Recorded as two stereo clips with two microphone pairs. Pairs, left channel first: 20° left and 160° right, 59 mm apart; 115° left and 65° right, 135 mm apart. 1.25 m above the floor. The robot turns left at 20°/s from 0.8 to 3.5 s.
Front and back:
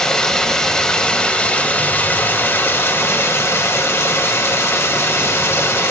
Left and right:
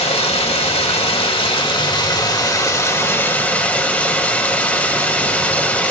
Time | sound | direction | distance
0.0 | running water | 95° left | 1.5 m